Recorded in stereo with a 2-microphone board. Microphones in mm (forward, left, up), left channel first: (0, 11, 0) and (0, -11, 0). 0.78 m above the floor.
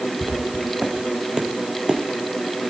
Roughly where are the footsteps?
Right.